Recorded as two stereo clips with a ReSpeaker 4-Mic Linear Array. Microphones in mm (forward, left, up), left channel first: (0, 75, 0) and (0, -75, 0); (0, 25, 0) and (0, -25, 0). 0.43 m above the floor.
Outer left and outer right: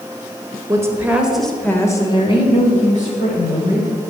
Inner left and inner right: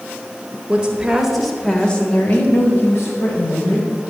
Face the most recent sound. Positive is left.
turn(degrees=65)  # may be behind; listen again after turning